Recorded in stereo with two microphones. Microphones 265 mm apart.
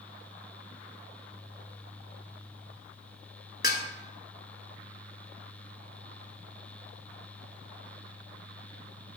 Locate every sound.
3.6 s dishes clattering: 35° left (ahead or behind), 0.9 m